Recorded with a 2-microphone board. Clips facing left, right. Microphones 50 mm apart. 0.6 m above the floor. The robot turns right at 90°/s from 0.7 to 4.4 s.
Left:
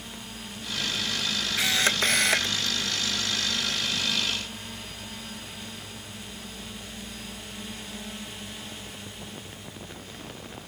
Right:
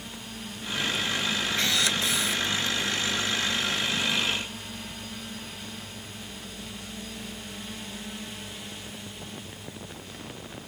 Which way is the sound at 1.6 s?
10° left.